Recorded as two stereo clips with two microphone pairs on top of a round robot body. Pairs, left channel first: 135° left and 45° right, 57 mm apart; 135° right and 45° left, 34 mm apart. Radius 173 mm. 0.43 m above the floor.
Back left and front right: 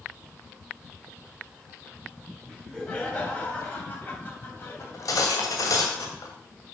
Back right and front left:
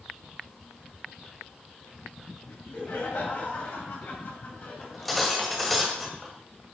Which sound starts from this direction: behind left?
Cutlery clinking, at 4.8 s.